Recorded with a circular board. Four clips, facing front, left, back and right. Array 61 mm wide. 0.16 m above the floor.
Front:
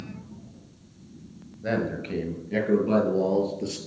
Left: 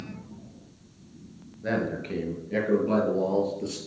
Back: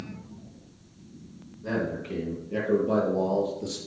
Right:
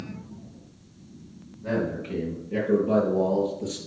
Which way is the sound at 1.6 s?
40° left.